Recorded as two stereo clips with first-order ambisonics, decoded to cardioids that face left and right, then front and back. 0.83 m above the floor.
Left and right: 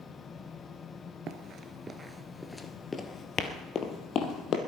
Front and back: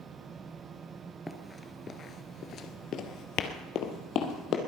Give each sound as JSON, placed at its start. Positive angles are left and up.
{"t": 1.3, "sound": "running footsteps", "azimuth_deg": -75, "distance_m": 0.9}